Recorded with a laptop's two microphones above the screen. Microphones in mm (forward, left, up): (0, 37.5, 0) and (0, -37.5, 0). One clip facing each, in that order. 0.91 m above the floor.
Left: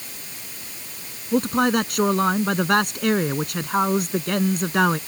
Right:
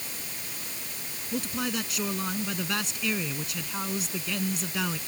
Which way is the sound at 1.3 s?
55° left (ahead or behind).